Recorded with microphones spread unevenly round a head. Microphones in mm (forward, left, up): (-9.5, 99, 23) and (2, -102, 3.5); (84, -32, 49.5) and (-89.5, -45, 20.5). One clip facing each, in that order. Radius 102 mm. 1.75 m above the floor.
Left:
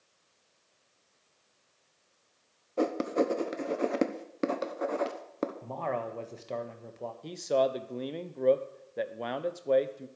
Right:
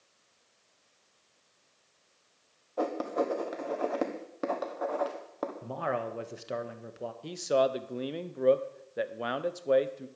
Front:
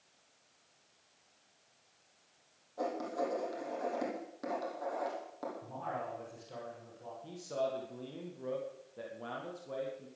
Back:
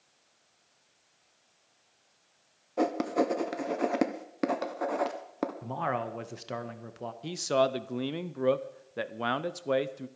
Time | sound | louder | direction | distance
2.8 | writing | left 3 dB, back 9 dB | 150° left | 1.1 m
5.6 | a man speaking | right 1 dB, back 8 dB | 165° right | 1.3 m
7.2 | a man speaking | right 1 dB, back 10 dB | 175° right | 0.8 m